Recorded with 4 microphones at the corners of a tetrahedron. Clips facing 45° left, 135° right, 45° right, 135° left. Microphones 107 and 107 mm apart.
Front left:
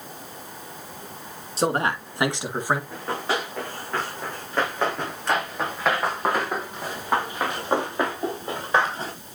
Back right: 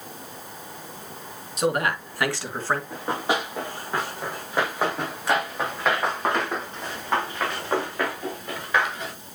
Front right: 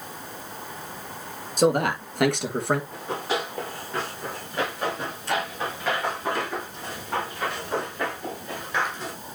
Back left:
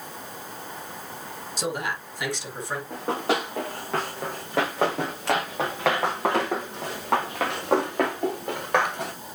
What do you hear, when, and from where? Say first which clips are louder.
1.6 s a man speaking: even, front right 9 dB; 10° right, 2.5 m; by 2.8 s 35° right, 2 m
2.9 s running footsteps: back right 1 dB, back left 3 dB; 150° left, 5.5 m; by 9.1 s 105° left, 4 m